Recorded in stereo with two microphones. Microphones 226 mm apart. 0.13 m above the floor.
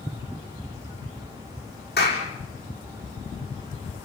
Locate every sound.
2.0 s a clap: 45° left (ahead or behind), 6 m